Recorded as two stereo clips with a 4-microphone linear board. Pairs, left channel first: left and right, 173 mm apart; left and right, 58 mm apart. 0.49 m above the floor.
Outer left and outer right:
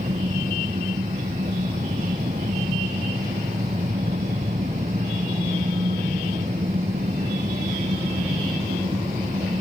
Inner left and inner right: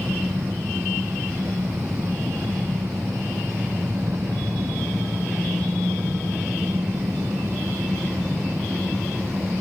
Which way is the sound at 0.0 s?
45° right (ahead or behind).